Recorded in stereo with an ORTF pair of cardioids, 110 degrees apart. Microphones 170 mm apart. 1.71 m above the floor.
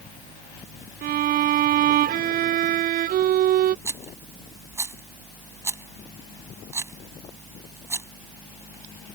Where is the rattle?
15° right.